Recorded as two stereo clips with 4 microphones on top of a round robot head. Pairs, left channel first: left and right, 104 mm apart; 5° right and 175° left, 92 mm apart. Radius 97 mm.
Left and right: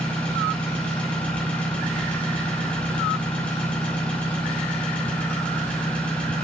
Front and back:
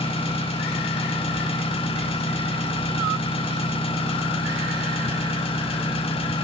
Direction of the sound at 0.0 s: 10° left.